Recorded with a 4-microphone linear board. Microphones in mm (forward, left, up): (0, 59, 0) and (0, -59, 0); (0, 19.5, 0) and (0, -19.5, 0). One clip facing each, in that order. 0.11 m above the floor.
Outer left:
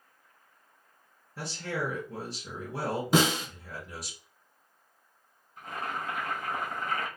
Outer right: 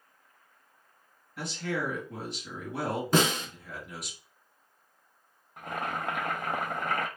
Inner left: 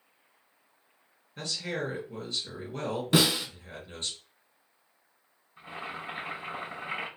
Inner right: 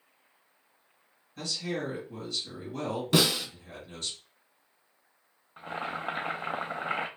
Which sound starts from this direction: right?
Boiling, at 5.6 s.